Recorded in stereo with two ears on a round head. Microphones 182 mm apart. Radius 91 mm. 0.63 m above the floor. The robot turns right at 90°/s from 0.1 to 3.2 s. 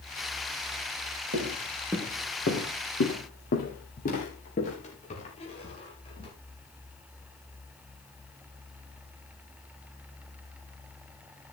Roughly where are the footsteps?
Right.